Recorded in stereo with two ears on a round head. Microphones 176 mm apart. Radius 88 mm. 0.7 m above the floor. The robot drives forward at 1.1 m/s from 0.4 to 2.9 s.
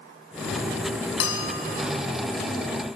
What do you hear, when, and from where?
1.2 s a bell: 80° left, 4.5 m; by 1.8 s 75° left (ahead or behind), 4.5 m